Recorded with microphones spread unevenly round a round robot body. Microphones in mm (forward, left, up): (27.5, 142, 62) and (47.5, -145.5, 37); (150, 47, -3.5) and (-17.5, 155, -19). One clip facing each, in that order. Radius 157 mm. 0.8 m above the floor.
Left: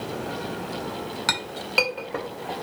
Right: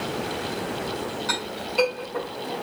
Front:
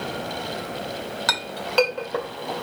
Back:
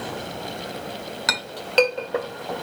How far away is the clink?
About 2 m.